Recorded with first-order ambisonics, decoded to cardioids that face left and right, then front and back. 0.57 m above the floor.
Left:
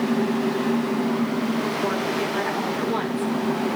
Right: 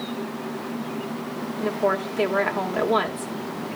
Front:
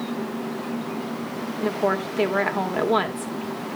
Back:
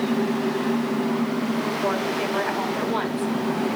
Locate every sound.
1.6 s a woman speaking: 30° right, 1.9 m